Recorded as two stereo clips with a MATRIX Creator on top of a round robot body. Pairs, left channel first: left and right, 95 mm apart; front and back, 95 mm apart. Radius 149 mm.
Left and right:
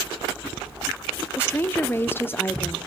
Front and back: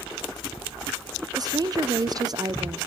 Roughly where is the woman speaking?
Behind left.